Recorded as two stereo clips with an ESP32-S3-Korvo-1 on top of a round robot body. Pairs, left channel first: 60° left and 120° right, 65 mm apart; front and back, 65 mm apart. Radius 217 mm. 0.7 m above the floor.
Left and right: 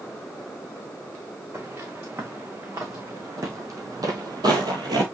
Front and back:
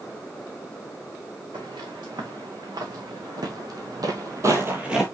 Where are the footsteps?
170° right, 5 m; by 5.0 s 95° right, 1.0 m.